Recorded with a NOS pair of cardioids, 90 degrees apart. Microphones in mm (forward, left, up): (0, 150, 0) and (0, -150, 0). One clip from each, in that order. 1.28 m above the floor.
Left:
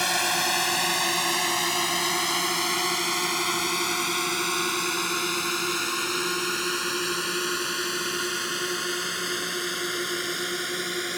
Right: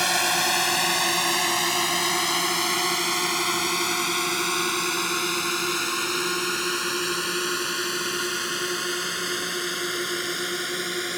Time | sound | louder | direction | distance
0.0 | a drone | right 2 dB | 20° right | ?